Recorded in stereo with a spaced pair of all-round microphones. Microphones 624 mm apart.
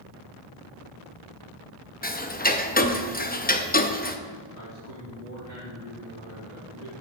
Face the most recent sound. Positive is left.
turn(degrees=-80)